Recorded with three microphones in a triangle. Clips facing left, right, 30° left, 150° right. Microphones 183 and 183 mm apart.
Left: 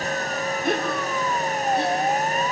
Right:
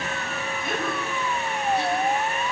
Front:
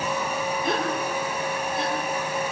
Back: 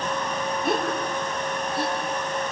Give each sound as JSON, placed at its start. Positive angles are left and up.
{"t": 0.6, "sound": "a gasp", "azimuth_deg": 125, "distance_m": 8.0}